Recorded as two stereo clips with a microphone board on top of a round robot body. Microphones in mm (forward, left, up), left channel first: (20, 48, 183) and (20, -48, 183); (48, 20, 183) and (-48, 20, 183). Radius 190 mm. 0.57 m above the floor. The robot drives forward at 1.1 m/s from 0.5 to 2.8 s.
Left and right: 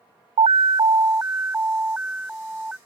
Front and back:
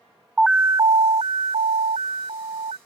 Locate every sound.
0.4 s an alarm: 95° right; by 2.8 s 170° right